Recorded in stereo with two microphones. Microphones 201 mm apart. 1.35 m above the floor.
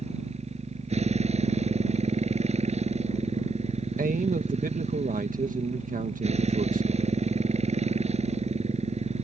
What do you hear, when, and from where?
0.0 s a motorcycle: 30° right (ahead or behind)
4.0 s a man speaking: 45° right (ahead or behind)